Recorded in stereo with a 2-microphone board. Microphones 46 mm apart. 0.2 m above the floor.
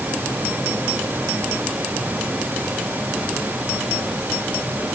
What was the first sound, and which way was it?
Only background noise.